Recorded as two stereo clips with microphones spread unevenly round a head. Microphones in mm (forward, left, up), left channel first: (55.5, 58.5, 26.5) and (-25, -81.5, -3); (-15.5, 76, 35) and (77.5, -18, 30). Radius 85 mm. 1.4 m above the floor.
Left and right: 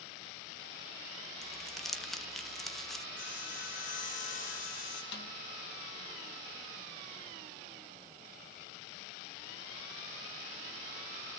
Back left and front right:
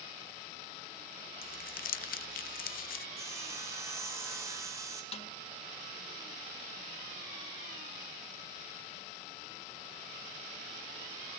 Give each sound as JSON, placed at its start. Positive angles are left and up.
{"t": 1.4, "sound": "crumpling", "azimuth_deg": 145, "distance_m": 0.8}
{"t": 3.2, "sound": "sawing", "azimuth_deg": 20, "distance_m": 5.0}
{"t": 5.1, "sound": "a snare drum", "azimuth_deg": 90, "distance_m": 2.5}